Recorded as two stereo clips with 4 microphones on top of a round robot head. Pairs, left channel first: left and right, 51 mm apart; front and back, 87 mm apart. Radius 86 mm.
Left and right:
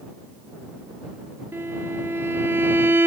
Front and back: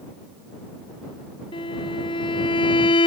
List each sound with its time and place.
1.5 s a violin: 35° right